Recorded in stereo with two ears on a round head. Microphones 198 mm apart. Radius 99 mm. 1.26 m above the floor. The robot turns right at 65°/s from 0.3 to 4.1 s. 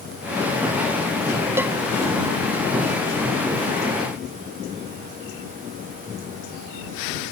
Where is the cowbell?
10° right (ahead or behind); by 1.7 s centre (ahead or behind).